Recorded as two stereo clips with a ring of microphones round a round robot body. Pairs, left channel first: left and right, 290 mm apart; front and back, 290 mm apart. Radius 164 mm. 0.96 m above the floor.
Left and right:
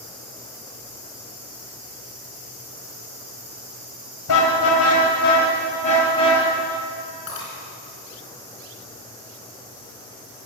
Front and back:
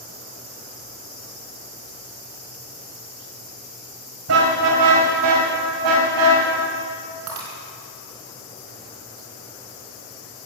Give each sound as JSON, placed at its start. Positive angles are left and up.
{"t": 4.3, "sound": "a car horn", "azimuth_deg": 130, "distance_m": 3.0}
{"t": 7.3, "sound": "breaking glass", "azimuth_deg": 145, "distance_m": 4.5}